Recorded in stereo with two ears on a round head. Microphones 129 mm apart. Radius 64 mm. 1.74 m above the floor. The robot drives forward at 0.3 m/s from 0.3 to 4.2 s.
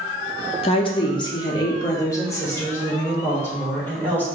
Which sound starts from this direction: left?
A woman speaking, at 0.6 s.